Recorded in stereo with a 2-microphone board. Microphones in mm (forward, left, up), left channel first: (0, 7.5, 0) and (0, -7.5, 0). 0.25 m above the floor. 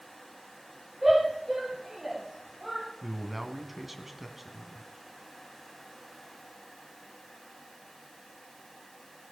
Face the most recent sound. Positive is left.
turn(degrees=-5)  # may be behind; listen again after turning